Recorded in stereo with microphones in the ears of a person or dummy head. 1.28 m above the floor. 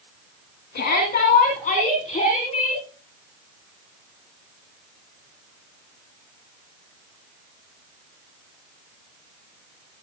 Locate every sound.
0.8 s a shout: 50° left (ahead or behind), 2 m; by 2.8 s 30° left (ahead or behind), 3.5 m